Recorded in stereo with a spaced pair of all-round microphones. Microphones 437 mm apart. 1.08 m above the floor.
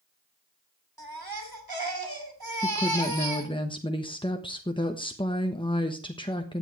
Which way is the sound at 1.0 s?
55° right (ahead or behind).